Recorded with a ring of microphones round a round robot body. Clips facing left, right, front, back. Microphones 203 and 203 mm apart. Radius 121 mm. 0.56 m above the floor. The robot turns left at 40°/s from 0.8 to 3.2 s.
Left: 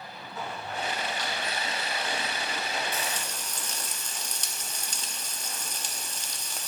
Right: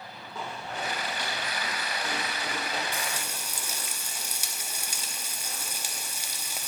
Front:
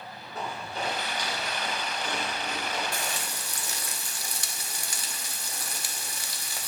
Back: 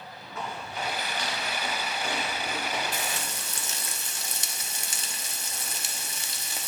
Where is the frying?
145° right, 1.1 m; by 6.7 s 160° right, 1.1 m.